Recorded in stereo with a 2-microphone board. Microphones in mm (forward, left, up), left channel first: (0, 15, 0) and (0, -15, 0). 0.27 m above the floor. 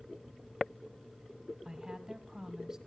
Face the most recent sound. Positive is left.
turn(degrees=-25)  # may be behind; listen again after turning